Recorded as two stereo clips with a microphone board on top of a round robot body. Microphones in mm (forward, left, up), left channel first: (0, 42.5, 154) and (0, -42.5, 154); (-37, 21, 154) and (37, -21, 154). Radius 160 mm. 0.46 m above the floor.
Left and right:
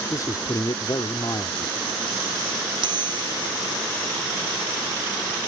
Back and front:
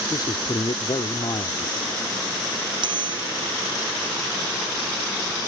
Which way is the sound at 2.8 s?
60° right.